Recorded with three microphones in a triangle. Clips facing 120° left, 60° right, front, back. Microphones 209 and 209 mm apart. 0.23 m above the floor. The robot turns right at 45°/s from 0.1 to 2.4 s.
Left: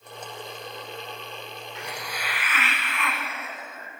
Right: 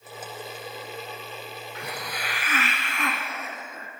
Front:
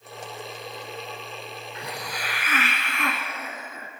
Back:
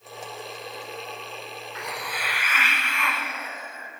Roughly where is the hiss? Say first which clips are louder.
Right 1 dB, even; ahead right.